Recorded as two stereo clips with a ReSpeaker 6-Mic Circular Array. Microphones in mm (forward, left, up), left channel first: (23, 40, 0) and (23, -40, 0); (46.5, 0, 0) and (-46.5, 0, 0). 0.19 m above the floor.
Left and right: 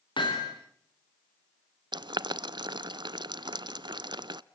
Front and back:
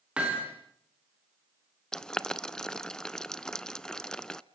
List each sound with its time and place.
0.2 s hammering: 100° left, 5.5 m
1.9 s boiling: 85° right, 0.5 m